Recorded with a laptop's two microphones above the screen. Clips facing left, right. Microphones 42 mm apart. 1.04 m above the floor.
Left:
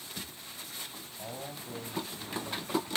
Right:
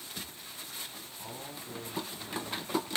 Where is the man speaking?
40° left (ahead or behind), 6 m.